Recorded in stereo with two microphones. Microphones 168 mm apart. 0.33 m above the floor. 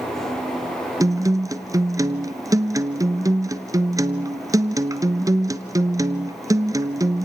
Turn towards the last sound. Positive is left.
turn(degrees=-20)  # may be behind; listen again after turning